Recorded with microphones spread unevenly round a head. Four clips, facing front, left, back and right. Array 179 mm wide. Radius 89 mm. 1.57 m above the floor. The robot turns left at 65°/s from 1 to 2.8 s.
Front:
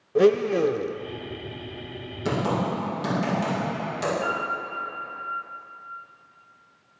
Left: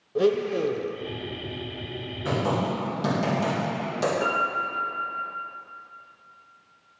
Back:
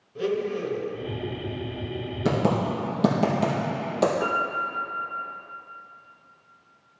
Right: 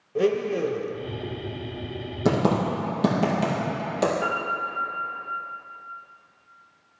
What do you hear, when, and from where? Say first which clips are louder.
0.1 s a blender: even, front 8 dB; 5° left, 0.5 m
2.2 s typing on a keyboard: right 4 dB, back 1 dB; 115° right, 1.5 m; by 4.1 s 150° right, 1.5 m
4.2 s a piano: left 1 dB, back 2 dB; 145° left, 2.5 m